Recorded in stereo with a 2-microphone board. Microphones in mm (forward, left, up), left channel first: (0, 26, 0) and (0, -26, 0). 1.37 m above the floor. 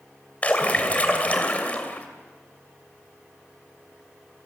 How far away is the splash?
About 2.5 m.